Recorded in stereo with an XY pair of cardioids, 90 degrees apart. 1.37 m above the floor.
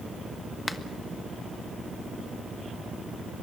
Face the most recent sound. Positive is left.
turn(degrees=25)